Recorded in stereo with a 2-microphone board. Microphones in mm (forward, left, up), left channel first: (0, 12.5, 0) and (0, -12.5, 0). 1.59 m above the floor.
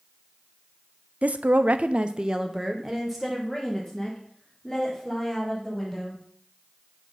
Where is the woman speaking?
60° right (ahead or behind), 0.6 m; by 6.2 s 10° left (ahead or behind), 3.5 m.